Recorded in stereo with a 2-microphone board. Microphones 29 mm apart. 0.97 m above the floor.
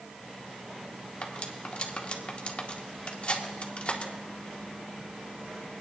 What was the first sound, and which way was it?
Cutlery clinking, 45° left (ahead or behind).